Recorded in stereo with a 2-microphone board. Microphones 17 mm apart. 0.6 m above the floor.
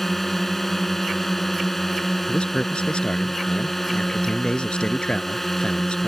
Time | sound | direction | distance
0.0 | a drone | 20° left (ahead or behind) | ?
2.3 | a man speaking | 65° left (ahead or behind) | ?